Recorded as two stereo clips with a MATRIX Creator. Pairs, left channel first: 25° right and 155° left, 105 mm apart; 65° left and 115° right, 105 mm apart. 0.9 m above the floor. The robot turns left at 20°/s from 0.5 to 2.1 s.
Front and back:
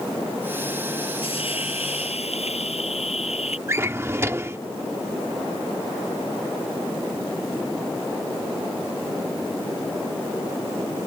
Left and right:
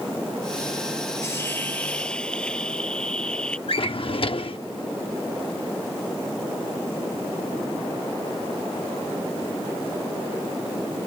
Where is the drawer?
95° left.